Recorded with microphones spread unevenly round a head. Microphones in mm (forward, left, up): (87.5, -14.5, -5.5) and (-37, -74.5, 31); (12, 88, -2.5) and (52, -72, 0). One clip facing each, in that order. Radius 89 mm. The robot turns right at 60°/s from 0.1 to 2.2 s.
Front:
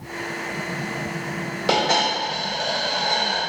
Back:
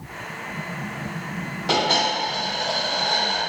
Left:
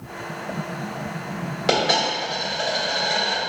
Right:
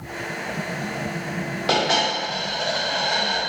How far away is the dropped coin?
About 1.7 m.